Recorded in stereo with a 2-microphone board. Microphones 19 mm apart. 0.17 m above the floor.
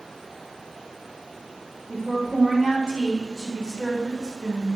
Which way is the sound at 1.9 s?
30° right (ahead or behind).